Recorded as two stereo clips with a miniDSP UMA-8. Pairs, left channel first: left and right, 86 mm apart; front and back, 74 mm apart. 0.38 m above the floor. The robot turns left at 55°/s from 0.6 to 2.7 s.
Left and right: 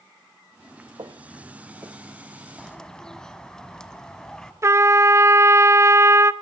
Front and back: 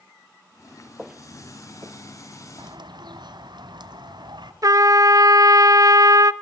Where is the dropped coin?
I don't hear a dropped coin.